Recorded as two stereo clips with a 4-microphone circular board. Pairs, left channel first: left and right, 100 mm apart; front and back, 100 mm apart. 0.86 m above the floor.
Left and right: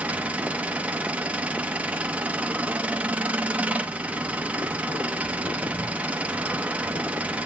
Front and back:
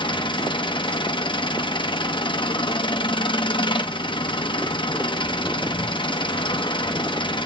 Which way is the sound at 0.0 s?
15° right.